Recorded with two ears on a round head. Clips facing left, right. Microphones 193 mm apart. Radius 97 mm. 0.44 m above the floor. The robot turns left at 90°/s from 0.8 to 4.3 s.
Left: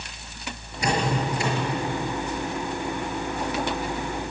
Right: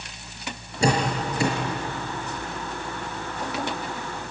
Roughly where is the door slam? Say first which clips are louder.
Right 1 dB; right.